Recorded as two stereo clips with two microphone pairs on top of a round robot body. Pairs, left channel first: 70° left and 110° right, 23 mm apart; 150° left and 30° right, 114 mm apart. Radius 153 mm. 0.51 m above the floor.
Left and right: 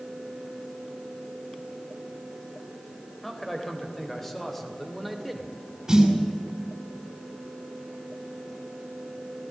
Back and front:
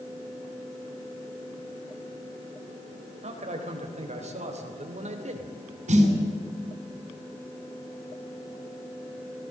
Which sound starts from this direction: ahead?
A man speaking, at 3.2 s.